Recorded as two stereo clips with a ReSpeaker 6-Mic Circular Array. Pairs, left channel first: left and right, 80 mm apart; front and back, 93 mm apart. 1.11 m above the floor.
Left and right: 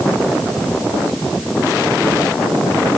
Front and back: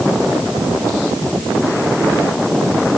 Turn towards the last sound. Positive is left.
No sound to turn to.